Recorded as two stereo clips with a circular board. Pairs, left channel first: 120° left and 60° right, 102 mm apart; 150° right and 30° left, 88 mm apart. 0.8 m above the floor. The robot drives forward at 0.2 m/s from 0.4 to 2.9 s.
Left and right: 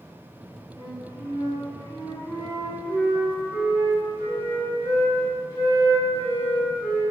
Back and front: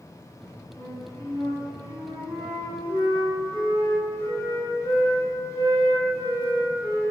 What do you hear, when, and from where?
0.8 s a flute: 150° right, 1.7 m; by 7.0 s 155° right, 2 m